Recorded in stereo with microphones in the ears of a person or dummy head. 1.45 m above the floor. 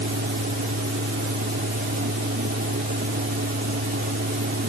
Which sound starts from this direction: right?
A fan, at 0.0 s.